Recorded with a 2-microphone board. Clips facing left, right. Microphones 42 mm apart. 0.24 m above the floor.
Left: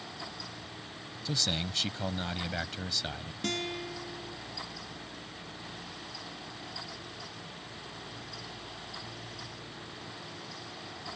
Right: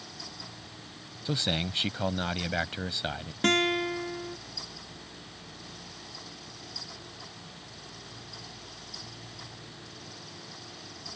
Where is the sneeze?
I don't hear a sneeze.